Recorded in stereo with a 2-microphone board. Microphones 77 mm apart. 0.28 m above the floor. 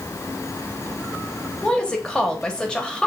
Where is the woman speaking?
10° left (ahead or behind), 0.9 m.